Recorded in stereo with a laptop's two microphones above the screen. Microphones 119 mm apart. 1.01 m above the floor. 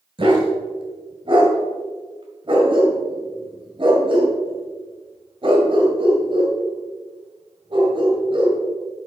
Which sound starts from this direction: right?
A dog barking, at 0.2 s.